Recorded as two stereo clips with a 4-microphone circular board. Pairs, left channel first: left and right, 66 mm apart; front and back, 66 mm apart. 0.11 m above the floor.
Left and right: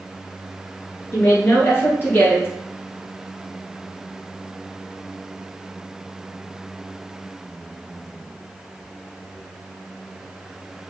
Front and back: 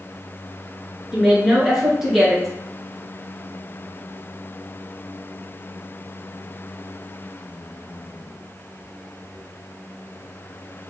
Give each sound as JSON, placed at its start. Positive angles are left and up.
{"t": 1.1, "sound": "a woman speaking", "azimuth_deg": 100, "distance_m": 1.5}